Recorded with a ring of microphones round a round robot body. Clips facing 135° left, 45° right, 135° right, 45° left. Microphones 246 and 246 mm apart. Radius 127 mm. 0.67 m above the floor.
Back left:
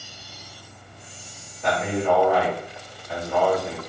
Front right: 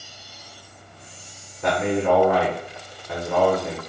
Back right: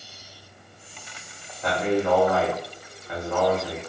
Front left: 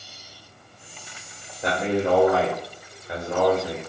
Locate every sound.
1.6 s a man speaking: 25° right, 1.5 m